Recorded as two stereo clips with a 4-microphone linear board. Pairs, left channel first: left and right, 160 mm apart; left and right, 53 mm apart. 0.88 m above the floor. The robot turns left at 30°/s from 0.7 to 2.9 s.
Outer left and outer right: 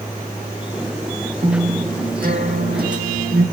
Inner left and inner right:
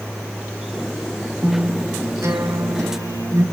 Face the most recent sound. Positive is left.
turn(degrees=-90)